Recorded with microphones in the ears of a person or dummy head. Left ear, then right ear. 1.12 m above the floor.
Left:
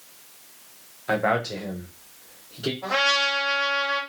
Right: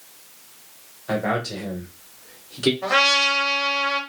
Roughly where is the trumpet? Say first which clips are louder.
Right 3 dB; right.